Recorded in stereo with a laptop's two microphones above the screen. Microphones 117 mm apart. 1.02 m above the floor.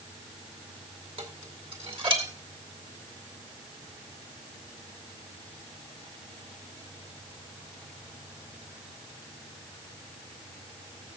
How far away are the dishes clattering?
About 1.9 m.